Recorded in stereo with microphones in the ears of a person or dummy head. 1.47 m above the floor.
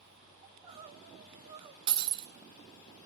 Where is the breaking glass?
30° right (ahead or behind), 1.7 m.